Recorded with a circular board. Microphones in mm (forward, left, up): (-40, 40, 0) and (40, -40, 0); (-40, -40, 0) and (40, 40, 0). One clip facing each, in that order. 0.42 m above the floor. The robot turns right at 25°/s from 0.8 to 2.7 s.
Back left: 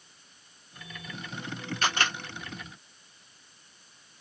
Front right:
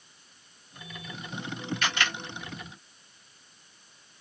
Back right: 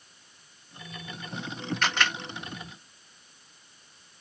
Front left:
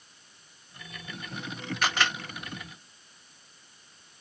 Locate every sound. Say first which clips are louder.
1.8 s a camera shutter: back left 3 dB, front left 1 dB; 125° left, 1.4 m; by 2.2 s 135° left, 1.4 m